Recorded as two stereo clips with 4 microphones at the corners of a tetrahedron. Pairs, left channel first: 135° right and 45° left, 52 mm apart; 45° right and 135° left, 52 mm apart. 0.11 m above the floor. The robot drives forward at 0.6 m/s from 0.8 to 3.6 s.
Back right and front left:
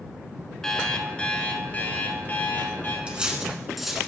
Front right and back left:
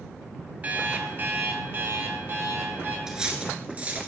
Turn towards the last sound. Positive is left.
turn(degrees=125)